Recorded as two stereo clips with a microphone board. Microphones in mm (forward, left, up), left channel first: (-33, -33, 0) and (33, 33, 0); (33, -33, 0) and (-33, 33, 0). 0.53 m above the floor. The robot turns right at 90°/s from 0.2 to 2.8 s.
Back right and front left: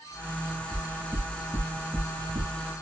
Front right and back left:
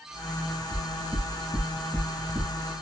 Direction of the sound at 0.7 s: 140° right.